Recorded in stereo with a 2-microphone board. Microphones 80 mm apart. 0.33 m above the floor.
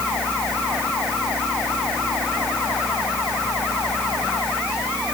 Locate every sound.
Only background noise.